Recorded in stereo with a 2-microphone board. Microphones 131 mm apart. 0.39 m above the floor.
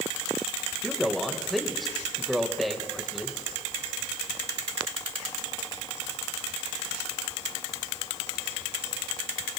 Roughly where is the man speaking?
Centre.